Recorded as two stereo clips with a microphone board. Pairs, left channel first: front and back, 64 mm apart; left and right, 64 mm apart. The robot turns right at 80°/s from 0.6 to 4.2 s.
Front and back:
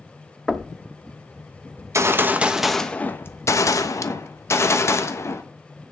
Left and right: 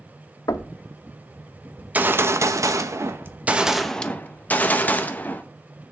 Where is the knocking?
85° left, 0.9 m; by 0.7 s 95° left, 0.9 m.